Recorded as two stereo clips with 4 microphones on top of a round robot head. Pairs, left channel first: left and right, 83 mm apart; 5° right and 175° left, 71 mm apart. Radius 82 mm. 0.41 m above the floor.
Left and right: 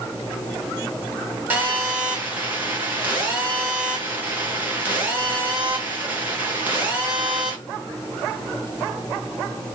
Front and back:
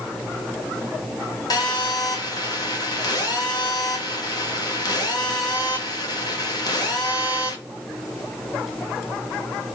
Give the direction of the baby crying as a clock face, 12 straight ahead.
I don't hear a baby crying.